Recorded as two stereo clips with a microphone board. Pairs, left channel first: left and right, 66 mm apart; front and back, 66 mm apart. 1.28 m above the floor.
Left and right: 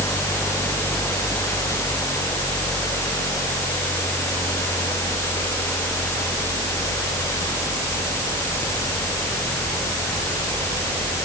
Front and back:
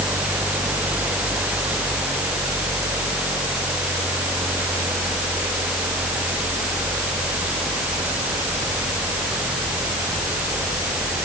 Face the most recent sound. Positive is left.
No sound to turn to.